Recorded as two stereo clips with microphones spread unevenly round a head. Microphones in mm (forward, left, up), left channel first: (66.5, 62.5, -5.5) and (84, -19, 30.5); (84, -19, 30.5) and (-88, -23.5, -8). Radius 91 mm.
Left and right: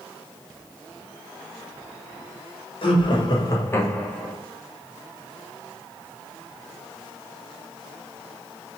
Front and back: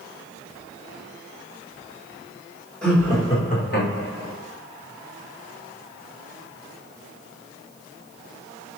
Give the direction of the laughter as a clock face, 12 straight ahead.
9 o'clock.